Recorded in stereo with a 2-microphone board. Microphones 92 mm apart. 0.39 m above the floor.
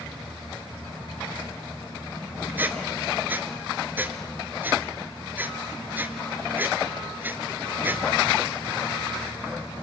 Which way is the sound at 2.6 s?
20° right (ahead or behind).